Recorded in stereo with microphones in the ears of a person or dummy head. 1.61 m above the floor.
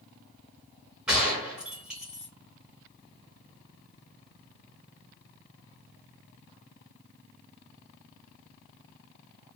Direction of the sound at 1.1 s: 5° right (ahead or behind).